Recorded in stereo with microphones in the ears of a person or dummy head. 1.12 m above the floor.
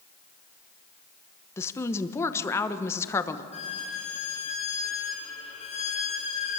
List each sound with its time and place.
1.6 s a woman speaking: 15° left (ahead or behind), 1.1 m
3.5 s a violin: 40° left (ahead or behind), 4.5 m